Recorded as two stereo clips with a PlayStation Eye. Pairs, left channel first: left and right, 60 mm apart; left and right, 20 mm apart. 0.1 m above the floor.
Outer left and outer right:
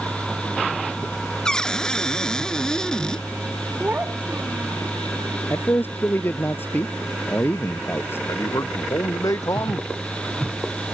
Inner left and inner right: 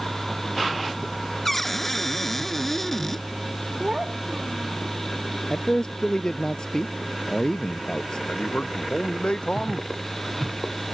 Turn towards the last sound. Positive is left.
turn(degrees=75)  # may be behind; listen again after turning